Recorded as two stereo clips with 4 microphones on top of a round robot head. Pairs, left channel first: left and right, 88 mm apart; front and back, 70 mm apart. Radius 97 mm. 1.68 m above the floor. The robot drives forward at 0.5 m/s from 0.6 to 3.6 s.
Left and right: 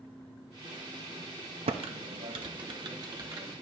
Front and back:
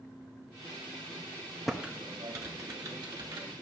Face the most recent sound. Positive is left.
turn(degrees=-150)